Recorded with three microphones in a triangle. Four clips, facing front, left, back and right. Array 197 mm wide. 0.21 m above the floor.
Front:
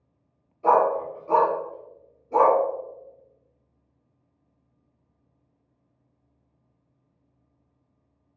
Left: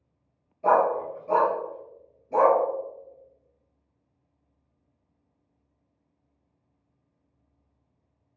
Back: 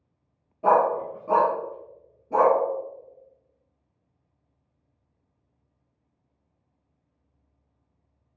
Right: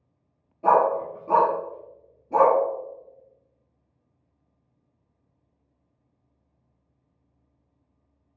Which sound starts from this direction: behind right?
A dog barking, at 0.6 s.